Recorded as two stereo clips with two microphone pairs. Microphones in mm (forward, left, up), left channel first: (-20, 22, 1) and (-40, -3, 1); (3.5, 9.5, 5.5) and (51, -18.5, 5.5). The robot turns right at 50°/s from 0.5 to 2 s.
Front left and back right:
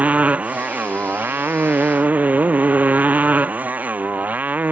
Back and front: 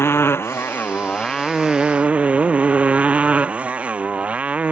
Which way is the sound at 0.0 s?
170° right.